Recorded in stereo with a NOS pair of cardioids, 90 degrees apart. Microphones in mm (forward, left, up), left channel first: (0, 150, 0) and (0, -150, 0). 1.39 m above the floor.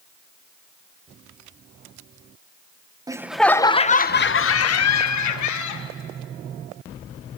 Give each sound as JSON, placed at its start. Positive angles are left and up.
{"t": 3.1, "sound": "laughter", "azimuth_deg": -10, "distance_m": 1.2}